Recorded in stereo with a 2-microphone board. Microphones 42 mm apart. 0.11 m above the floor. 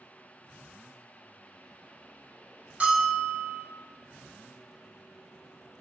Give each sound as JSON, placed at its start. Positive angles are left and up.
{"t": 2.8, "sound": "a bell", "side_deg": -30, "distance_m": 0.6}